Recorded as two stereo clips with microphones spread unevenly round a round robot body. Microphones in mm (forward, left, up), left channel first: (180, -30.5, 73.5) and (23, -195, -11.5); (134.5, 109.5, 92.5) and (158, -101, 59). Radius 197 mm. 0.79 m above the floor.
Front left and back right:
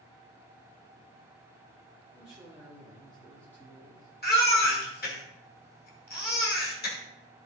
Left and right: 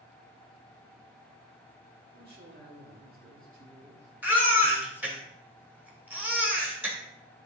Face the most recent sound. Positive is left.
turn(degrees=0)